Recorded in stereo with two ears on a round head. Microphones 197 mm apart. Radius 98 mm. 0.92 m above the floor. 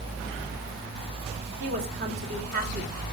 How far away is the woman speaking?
About 3.5 m.